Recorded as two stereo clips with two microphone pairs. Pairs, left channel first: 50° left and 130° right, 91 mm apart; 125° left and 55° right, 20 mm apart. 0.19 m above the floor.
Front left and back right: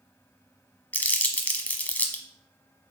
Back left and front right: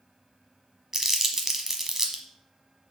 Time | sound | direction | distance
0.9 | crumpling | 5° right | 1.1 m